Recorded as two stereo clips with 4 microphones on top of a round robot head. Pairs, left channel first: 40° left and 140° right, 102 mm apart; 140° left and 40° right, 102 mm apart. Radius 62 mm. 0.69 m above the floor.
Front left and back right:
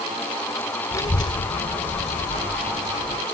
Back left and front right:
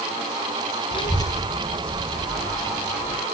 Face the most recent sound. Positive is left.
turn(degrees=45)